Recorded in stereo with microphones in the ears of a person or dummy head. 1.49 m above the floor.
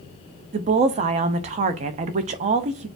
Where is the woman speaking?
35° right (ahead or behind), 0.5 m.